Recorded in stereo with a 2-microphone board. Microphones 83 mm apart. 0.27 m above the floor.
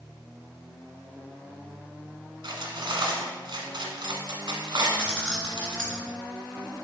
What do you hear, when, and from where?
2.4 s cutlery clinking: 65° right (ahead or behind), 1.4 m
5.0 s keys jangling: 10° left (ahead or behind), 2 m